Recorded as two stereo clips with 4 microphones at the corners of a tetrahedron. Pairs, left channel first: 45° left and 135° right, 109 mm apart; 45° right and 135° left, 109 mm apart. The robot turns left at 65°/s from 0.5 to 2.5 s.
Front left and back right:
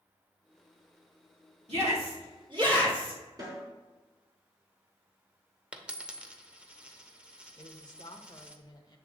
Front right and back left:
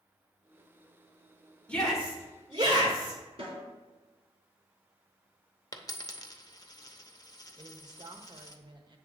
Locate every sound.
1.7 s a shout: 125° right, 2.5 m; by 3.2 s 175° right, 2.5 m
3.4 s a snare drum: 170° left, 3.5 m
5.7 s a dropped coin: 65° right, 0.8 m
7.6 s a woman speaking: 90° left, 1.1 m